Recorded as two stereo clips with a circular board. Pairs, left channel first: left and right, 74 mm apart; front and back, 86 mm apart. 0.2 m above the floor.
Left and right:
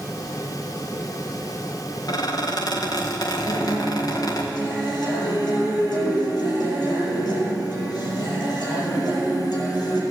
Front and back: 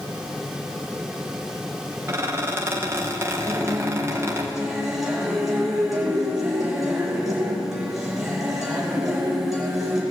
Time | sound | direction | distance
2.1 | a squeak | 115° left | 3 m
3.5 | a guitar | 95° left | 5 m